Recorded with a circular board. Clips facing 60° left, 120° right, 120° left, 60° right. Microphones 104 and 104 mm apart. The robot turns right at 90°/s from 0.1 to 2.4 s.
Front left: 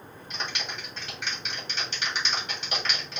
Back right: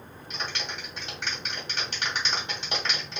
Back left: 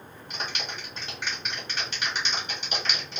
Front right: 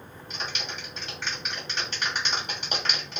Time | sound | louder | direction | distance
0.3 | a clap | even, back left 1 dB | 110° left | 1.6 m